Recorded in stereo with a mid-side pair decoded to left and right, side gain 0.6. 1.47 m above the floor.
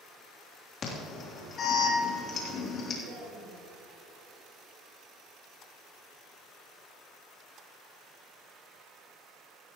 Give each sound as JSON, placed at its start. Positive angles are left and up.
{"t": 0.8, "sound": "an alarm", "azimuth_deg": 45, "distance_m": 3.0}
{"t": 3.0, "sound": "a woman speaking", "azimuth_deg": -65, "distance_m": 4.5}